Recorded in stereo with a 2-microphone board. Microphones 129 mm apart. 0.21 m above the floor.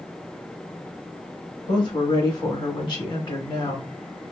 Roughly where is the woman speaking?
Left.